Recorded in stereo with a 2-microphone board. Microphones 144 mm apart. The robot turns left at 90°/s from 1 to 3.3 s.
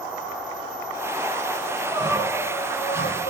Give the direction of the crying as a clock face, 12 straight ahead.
5 o'clock.